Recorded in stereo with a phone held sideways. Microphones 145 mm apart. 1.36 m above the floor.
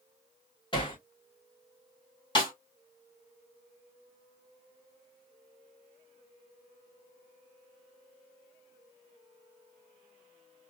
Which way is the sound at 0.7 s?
35° left (ahead or behind).